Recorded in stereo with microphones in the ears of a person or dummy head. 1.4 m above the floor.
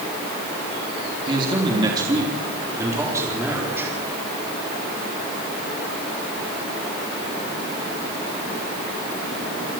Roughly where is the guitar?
I don't hear a guitar.